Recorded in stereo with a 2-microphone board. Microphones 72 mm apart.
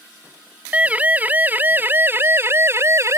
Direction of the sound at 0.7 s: 20° right (ahead or behind).